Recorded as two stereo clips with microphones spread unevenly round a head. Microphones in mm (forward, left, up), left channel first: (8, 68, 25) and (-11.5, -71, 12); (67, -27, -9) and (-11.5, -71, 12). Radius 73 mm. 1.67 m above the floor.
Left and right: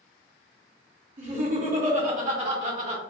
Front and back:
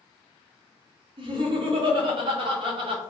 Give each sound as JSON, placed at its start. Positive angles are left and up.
{"t": 1.2, "sound": "laughter", "azimuth_deg": -140, "distance_m": 1.1}